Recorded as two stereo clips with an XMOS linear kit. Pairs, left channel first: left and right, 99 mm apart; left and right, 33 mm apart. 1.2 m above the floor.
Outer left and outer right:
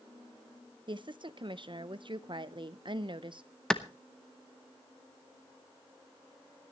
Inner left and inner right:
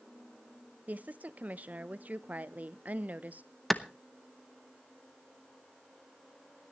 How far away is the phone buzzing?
No phone buzzing in this recording.